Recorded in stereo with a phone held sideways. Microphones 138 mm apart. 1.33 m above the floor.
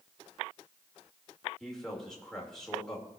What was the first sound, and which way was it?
A man speaking, 5° left (ahead or behind).